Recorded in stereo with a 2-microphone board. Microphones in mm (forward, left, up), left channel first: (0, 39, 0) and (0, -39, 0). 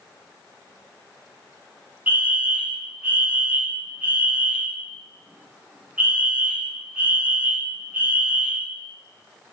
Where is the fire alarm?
20° right (ahead or behind), 2.5 m.